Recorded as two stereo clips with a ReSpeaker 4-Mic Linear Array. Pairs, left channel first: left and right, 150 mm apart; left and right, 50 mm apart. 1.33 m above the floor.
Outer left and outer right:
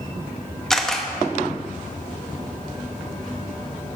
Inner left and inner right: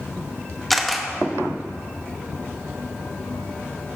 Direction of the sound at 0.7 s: 5° left (ahead or behind).